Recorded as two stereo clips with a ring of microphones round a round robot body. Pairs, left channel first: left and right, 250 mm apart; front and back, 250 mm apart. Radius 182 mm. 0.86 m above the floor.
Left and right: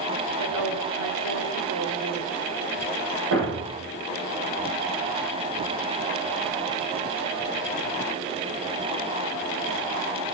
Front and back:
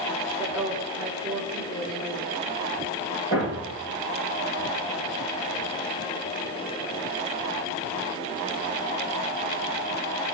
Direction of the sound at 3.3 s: 70° right.